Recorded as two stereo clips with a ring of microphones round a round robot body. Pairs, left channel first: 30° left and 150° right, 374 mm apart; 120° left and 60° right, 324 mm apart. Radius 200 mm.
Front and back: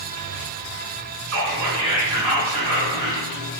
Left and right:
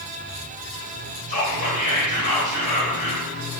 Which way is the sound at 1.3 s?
135° left.